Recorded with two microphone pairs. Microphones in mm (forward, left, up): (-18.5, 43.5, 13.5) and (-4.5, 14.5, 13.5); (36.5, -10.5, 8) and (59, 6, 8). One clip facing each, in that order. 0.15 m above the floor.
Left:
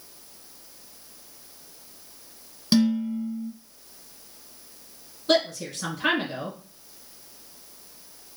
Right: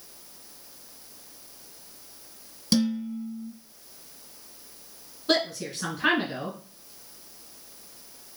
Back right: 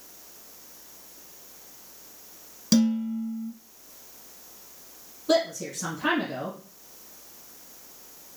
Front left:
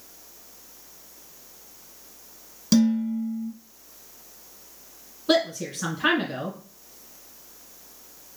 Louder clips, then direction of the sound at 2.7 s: Left 4 dB, front left 2 dB; 120° left.